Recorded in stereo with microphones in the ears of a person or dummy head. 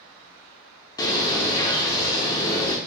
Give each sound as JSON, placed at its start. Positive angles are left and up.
{"t": 1.0, "sound": "a bird", "side_deg": 15, "distance_m": 0.5}